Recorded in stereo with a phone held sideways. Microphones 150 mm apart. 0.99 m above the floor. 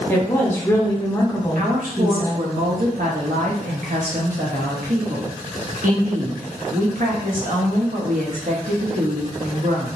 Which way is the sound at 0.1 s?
15° left (ahead or behind).